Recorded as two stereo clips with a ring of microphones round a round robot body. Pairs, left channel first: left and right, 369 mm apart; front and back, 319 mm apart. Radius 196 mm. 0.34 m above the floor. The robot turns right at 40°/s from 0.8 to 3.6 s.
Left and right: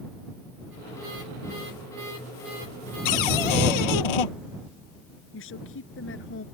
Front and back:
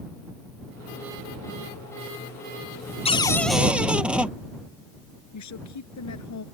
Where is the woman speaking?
30° left.